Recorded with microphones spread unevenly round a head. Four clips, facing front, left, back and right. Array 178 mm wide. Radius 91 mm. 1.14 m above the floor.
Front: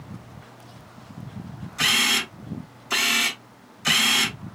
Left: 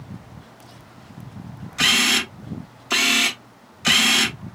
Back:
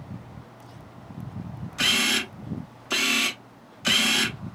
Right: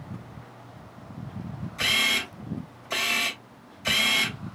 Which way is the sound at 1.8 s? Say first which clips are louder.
Left 7 dB, front 1 dB; 95° left.